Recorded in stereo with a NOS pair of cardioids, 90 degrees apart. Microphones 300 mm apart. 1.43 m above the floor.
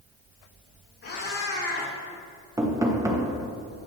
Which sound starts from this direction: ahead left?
A cat meowing, at 1.0 s.